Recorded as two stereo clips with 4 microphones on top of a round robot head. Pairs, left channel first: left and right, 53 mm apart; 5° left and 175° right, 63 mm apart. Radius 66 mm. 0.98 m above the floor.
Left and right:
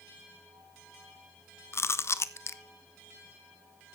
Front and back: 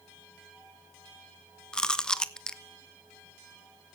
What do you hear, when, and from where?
1.7 s chewing: 80° left, 1.1 m